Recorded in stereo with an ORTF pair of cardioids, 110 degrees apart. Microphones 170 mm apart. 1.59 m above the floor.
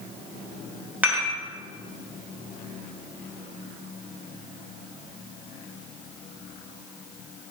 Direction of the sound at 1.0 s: 10° right.